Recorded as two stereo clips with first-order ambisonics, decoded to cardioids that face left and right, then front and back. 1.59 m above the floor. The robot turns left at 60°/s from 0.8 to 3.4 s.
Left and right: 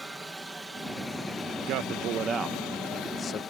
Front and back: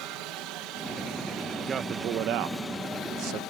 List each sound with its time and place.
0.0 s a helicopter: 175° right; by 3.5 s 30° left
1.6 s a man speaking: 110° right; by 3.4 s 145° left